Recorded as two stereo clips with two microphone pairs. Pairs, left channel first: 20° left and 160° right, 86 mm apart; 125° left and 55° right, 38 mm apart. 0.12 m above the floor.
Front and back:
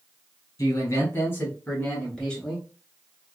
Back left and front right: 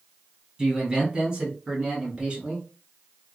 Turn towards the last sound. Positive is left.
turn(degrees=-65)